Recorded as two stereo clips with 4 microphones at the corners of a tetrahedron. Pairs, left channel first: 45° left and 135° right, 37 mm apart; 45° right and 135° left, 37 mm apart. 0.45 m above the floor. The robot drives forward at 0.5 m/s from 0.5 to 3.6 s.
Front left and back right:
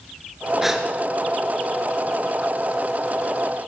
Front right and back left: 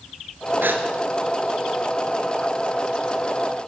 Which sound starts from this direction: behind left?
A gasp, at 0.6 s.